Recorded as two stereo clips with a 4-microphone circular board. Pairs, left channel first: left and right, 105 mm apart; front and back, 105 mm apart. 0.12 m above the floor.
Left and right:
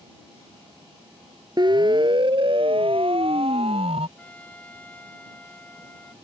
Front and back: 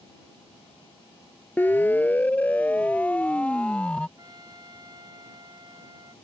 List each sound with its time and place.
1.6 s a siren: 65° right; by 4.1 s 80° right
4.2 s a trumpet: 155° left